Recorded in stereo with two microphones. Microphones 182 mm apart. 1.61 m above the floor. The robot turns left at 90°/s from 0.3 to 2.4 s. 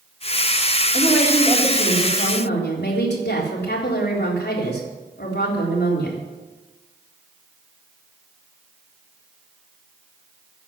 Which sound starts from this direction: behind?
A woman speaking, at 0.9 s.